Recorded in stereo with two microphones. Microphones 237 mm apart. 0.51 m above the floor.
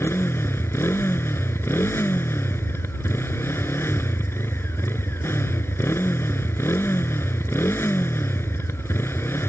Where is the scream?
No scream in this recording.